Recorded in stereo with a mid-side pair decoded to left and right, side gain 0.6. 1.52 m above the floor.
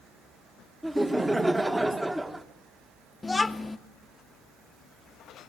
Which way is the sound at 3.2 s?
15° left.